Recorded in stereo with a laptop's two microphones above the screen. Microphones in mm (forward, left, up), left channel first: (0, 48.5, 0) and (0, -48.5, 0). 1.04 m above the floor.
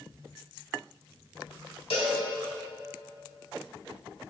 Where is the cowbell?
80° left, 2 m.